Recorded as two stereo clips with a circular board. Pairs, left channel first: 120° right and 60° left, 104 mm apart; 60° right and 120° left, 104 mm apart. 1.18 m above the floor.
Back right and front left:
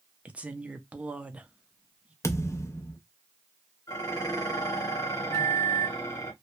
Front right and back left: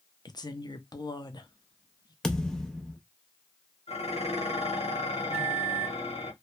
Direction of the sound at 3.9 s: 65° right.